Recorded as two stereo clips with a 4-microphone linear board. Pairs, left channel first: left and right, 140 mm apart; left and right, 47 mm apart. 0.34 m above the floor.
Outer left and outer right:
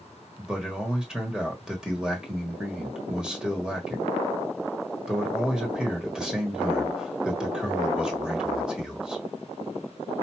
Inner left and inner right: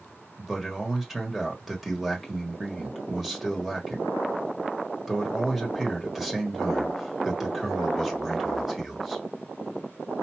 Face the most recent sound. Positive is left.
turn(degrees=-5)  # may be behind; listen again after turning